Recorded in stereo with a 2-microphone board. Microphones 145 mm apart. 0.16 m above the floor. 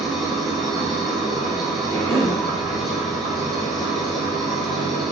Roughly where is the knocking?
I don't hear knocking.